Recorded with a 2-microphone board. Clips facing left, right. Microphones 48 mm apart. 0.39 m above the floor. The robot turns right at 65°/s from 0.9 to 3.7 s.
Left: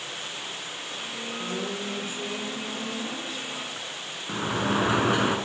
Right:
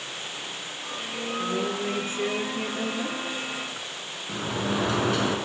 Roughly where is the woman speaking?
Behind.